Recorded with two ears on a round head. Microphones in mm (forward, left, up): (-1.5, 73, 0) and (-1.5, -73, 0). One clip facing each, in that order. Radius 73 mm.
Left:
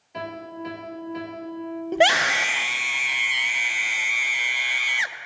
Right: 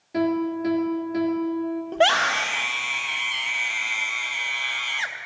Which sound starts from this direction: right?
A piano, at 0.1 s.